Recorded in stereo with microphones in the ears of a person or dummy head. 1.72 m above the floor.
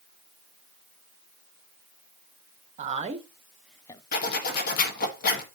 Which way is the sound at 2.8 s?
35° right (ahead or behind).